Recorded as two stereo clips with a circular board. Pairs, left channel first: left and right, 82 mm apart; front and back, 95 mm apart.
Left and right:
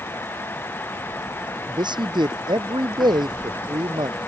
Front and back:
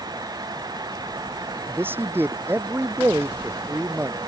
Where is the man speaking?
115° right.